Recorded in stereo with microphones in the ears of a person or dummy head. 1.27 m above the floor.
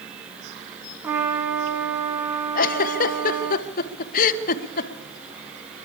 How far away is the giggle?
About 1.0 m.